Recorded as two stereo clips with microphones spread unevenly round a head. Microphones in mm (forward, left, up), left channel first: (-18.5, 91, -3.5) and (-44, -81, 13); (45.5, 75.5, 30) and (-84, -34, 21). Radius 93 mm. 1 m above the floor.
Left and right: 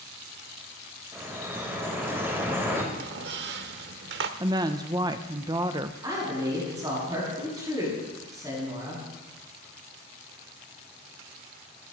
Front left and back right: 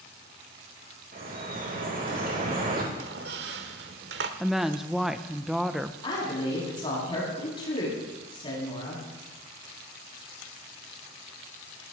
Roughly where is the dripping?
Behind.